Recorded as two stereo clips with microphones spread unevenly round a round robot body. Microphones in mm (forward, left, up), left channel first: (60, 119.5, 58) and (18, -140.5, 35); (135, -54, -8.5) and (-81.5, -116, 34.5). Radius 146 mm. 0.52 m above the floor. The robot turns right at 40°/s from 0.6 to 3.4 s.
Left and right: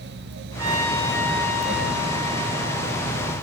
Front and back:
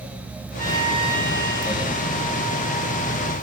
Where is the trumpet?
65° right, 9 m; by 3.3 s 45° left, 9 m.